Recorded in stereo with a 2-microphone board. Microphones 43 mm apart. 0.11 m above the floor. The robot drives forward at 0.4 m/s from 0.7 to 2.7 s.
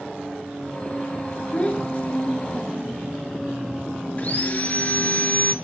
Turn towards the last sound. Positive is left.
turn(degrees=35)  # may be behind; listen again after turning